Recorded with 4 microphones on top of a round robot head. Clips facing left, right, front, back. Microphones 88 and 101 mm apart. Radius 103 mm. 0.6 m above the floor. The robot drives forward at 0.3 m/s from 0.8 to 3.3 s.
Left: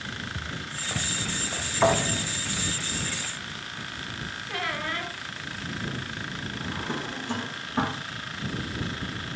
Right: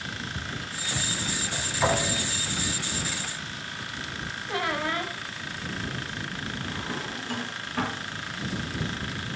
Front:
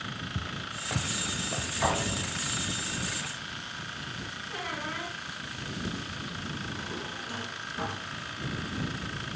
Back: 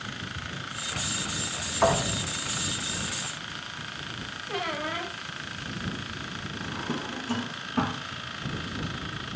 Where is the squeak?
155° right, 1.9 m.